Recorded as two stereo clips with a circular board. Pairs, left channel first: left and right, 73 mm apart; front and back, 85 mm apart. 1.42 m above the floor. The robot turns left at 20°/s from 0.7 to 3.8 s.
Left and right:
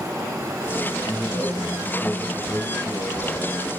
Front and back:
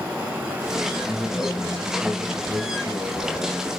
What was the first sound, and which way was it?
A man speaking, 90° left.